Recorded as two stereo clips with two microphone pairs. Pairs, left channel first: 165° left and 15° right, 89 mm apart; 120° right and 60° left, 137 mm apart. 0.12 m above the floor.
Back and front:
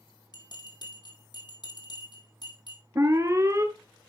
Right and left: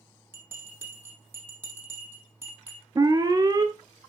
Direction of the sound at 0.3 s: 135° left.